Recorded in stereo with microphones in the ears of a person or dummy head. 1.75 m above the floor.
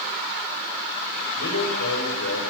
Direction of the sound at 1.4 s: 85° left.